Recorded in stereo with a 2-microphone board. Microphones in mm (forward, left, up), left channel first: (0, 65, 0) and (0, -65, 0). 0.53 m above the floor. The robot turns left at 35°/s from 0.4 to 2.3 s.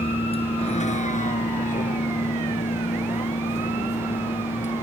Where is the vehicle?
50° left (ahead or behind); by 4.8 s 65° left (ahead or behind).